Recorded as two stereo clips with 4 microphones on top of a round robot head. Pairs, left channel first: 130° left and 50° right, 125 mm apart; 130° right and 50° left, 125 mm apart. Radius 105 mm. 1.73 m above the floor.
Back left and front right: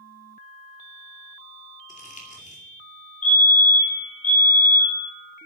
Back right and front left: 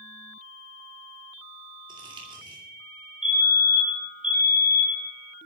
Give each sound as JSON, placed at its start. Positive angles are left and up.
{"t": 1.9, "sound": "crumpling", "azimuth_deg": 105, "distance_m": 2.5}
{"t": 3.2, "sound": "a fire alarm", "azimuth_deg": 130, "distance_m": 3.0}